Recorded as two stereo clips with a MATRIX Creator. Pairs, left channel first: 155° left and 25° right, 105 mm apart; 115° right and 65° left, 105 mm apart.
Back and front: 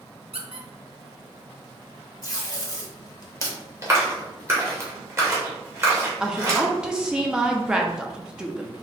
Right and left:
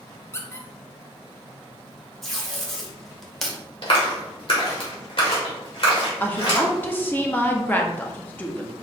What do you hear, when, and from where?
0.3 s a squeak: 45° right, 0.6 m
2.2 s tape being pulled: 160° left, 1.0 m
3.8 s a clap: 85° right, 1.6 m
6.2 s a woman speaking: 90° right, 0.6 m